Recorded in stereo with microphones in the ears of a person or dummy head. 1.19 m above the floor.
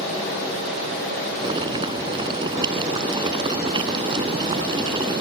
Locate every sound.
1.4 s boiling: 30° right (ahead or behind)